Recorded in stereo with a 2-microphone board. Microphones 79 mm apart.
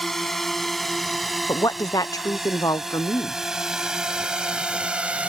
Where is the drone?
Centre (ahead or behind); by 5.3 s 15° right (ahead or behind).